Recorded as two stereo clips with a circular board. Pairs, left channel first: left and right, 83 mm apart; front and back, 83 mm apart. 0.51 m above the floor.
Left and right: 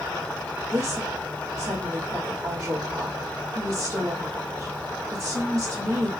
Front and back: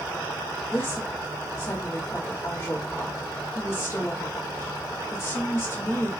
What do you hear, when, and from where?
0.7 s a woman speaking: 45° right, 1.5 m